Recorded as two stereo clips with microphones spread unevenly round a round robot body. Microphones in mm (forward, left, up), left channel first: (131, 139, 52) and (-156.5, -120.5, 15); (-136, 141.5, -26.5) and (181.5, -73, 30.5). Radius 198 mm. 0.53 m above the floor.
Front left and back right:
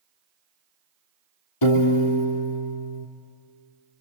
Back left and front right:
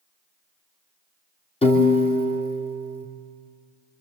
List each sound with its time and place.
1.6 s a piano: 70° left, 3 m